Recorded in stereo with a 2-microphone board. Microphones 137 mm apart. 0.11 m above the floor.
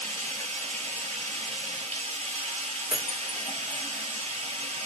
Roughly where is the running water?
Right.